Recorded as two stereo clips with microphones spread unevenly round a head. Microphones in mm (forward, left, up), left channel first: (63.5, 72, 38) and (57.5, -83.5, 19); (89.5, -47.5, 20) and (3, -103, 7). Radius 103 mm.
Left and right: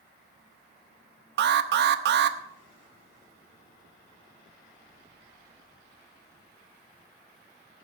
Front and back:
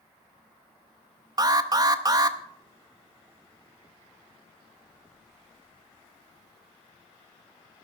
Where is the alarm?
95° right, 0.8 m.